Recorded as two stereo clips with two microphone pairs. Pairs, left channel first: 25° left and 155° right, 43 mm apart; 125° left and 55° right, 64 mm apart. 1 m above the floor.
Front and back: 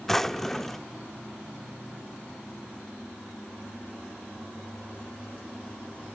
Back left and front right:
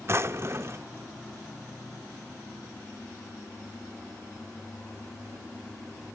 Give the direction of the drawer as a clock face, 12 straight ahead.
2 o'clock.